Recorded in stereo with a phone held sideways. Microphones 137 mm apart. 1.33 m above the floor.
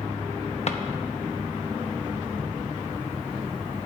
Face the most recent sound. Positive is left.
turn(degrees=50)  # may be behind; listen again after turning